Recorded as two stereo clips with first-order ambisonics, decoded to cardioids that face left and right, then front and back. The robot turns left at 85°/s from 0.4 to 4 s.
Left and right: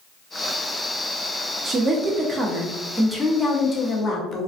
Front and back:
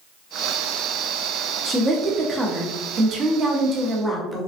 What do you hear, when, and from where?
1.6 s a woman speaking: 55° right, 0.6 m; by 4.5 s 105° left, 0.6 m